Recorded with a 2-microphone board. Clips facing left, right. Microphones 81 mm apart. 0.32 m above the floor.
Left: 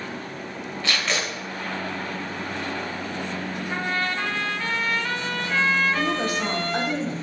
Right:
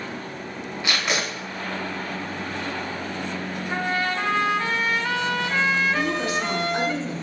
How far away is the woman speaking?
About 2.0 m.